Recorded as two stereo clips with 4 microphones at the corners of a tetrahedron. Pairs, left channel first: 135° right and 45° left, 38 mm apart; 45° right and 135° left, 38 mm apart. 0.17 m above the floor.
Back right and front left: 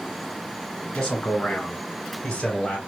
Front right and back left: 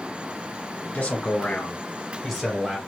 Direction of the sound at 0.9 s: 65° right.